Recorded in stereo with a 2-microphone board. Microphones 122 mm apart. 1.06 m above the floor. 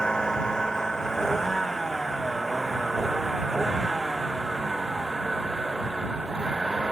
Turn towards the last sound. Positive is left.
turn(degrees=-5)  # may be behind; listen again after turning